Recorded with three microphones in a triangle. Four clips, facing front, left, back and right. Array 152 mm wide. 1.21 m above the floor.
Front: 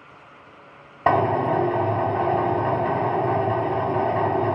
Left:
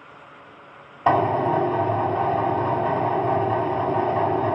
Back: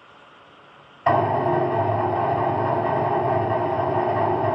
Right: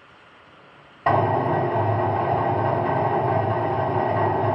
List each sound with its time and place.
1.1 s a drill: 10° left, 1.6 m